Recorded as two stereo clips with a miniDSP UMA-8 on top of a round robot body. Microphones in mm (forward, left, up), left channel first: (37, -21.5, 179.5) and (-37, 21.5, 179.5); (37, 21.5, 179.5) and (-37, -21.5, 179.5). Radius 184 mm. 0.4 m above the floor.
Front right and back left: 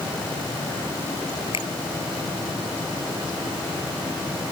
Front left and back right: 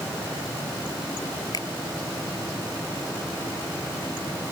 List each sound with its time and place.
1.5 s a finger snap: 15° right